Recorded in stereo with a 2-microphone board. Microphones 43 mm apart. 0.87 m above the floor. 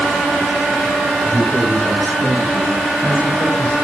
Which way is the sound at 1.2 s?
50° left (ahead or behind).